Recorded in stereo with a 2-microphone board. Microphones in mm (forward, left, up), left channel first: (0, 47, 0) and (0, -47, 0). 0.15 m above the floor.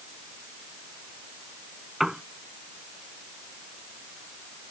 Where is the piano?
5° right (ahead or behind).